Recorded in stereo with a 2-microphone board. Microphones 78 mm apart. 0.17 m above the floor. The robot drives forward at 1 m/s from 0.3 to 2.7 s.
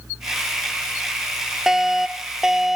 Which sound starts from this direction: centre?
A fire alarm, at 1.7 s.